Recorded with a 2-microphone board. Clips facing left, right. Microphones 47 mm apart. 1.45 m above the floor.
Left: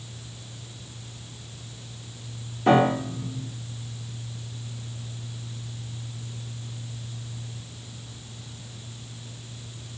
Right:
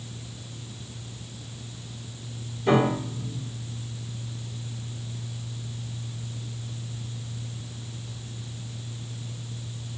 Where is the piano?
65° left (ahead or behind), 1.4 m.